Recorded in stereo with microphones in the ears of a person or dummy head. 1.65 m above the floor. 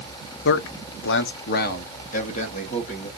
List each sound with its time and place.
0.5 s a man speaking: 55° left (ahead or behind), 0.6 m; by 3.1 s 40° left (ahead or behind), 1.9 m